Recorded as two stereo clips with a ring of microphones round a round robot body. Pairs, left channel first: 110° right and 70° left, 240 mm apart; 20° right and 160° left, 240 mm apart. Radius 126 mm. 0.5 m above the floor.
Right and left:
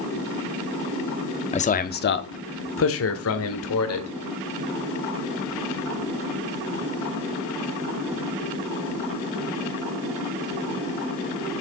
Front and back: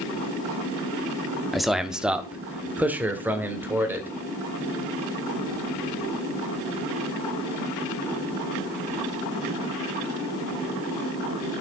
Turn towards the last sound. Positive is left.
turn(degrees=-120)